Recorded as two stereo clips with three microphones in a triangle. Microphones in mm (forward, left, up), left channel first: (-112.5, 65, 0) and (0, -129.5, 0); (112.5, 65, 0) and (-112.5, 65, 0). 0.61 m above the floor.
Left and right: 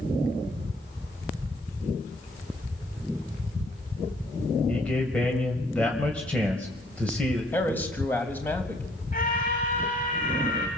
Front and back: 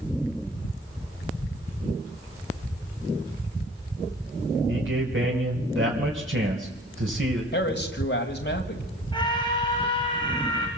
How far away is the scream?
About 3 m.